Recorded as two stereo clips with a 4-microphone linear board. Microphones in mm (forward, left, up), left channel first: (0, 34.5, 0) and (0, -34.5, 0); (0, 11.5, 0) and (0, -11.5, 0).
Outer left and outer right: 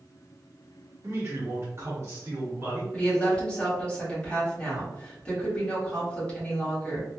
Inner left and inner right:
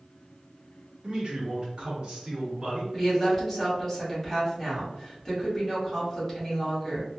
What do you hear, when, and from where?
1.0 s a man speaking: 40° right (ahead or behind), 1.2 m
2.9 s a woman speaking: 15° left (ahead or behind), 1.7 m